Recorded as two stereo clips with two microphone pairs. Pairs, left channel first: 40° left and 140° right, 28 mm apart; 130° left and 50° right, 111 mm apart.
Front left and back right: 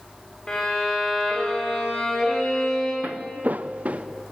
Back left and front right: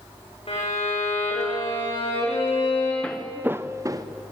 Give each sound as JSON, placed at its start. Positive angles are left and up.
{"t": 0.5, "sound": "a violin", "azimuth_deg": 100, "distance_m": 8.5}
{"t": 3.0, "sound": "footsteps", "azimuth_deg": -150, "distance_m": 0.8}